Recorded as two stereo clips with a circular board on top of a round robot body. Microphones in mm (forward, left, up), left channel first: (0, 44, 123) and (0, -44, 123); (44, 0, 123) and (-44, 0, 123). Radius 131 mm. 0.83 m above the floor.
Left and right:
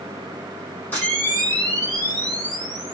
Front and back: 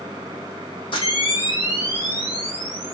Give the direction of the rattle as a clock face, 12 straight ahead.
I don't hear a rattle.